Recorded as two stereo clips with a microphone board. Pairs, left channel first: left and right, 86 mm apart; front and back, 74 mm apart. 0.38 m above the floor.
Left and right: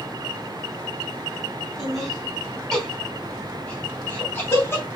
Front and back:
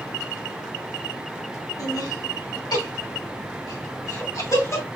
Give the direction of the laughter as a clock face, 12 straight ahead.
12 o'clock.